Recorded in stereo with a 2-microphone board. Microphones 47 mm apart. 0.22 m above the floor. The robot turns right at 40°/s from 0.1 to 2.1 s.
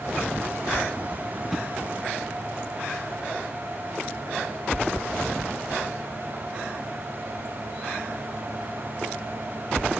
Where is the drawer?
10° right (ahead or behind), 1.4 m; by 1.7 s centre (ahead or behind), 1.4 m.